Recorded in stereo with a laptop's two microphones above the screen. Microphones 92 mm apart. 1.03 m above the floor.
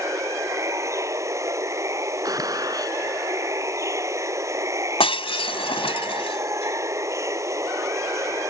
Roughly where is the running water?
Right.